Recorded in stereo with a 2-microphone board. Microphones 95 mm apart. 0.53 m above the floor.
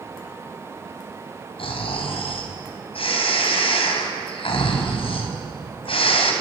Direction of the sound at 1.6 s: 70° left (ahead or behind).